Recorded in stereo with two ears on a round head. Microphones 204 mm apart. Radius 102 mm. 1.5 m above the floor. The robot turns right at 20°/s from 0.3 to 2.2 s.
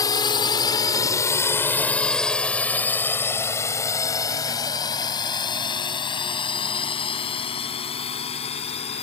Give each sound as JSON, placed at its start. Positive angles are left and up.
{"t": 0.0, "sound": "a drone", "side_deg": 15}